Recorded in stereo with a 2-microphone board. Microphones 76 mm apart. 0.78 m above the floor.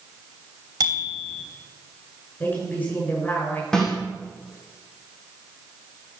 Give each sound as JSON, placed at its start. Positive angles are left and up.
{"t": 0.8, "sound": "a bicycle bell", "side_deg": -65, "distance_m": 3.0}
{"t": 2.4, "sound": "a woman speaking", "side_deg": 25, "distance_m": 7.5}
{"t": 3.7, "sound": "a snare drum", "side_deg": 10, "distance_m": 6.5}